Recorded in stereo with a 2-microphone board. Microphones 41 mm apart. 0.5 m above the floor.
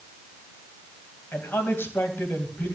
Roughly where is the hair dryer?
I don't hear a hair dryer.